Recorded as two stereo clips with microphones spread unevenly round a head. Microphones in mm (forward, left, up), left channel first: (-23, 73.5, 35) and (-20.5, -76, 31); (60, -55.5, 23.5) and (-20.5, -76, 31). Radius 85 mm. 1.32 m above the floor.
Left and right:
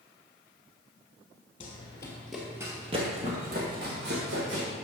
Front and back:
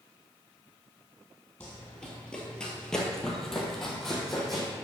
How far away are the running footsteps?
About 1.5 m.